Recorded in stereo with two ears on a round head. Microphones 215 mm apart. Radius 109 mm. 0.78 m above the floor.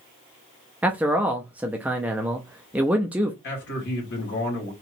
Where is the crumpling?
No crumpling in this recording.